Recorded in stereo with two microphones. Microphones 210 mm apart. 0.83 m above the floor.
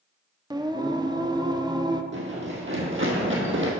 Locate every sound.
0.5 s singing: 20° right (ahead or behind), 0.5 m
2.1 s running footsteps: 65° right (ahead or behind), 2 m